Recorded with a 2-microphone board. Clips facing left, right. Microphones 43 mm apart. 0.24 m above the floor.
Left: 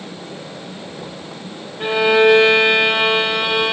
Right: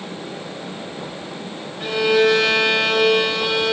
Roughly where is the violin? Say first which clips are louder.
Left 3 dB; left.